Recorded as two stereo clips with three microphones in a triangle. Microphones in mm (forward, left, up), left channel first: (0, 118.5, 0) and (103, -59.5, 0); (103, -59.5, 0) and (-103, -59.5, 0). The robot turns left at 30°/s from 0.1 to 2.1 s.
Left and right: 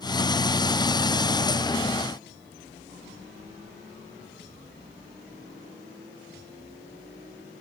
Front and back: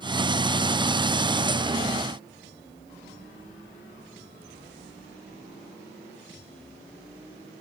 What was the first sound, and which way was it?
Only background noise.